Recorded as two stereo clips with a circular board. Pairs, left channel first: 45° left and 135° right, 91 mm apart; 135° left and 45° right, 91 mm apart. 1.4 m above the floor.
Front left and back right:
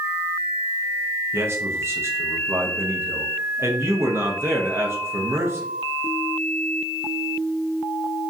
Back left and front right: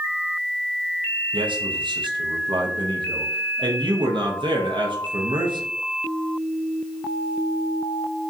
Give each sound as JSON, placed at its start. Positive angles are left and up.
{"t": 1.3, "sound": "a man speaking", "azimuth_deg": -70, "distance_m": 0.6}